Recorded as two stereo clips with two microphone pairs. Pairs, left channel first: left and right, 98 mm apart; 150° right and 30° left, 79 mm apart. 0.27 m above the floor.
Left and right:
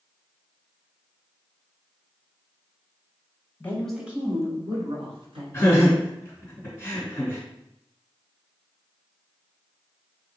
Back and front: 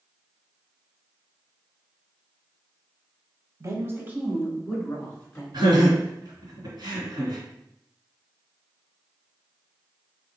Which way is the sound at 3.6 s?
35° left.